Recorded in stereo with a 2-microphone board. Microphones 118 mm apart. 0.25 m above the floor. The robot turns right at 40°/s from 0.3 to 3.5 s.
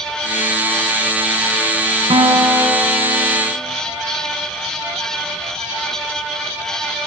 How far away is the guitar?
About 2.5 m.